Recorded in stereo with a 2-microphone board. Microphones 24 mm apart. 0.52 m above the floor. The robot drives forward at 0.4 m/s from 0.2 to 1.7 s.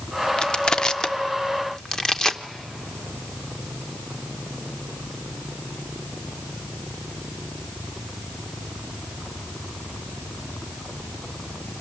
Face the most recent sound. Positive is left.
turn(degrees=25)  # may be behind; listen again after turning